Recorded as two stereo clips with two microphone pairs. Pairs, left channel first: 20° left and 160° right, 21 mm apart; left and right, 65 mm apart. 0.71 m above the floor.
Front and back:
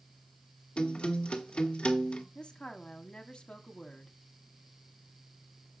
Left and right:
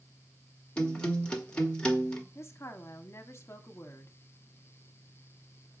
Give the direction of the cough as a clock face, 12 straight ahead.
No cough in this recording.